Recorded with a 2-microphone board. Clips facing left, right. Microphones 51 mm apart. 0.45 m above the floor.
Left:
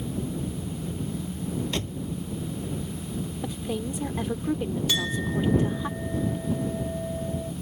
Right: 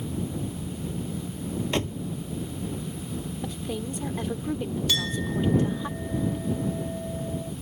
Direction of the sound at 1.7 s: 30° right (ahead or behind).